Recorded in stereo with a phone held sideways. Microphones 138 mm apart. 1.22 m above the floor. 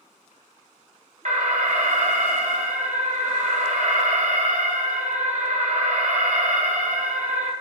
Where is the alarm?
60° right (ahead or behind), 1.0 m.